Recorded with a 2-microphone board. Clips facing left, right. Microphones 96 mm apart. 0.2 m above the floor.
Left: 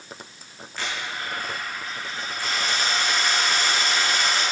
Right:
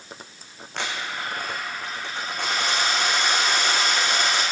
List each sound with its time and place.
0.8 s a dropped coin: 70° right (ahead or behind), 3.5 m